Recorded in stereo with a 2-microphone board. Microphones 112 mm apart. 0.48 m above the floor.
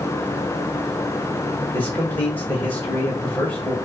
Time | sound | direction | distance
1.7 | a man speaking | 15° left (ahead or behind) | 3 m